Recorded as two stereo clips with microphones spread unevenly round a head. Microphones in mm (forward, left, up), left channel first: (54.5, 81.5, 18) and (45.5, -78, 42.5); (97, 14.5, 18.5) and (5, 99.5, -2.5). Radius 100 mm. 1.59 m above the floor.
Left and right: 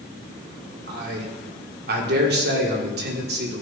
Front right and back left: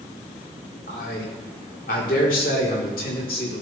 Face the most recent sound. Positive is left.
turn(degrees=-75)